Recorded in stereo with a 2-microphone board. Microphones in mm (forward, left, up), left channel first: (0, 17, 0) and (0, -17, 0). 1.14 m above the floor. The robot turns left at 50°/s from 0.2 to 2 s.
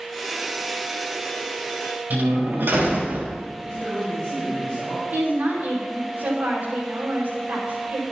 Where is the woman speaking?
65° right (ahead or behind), 4.5 m.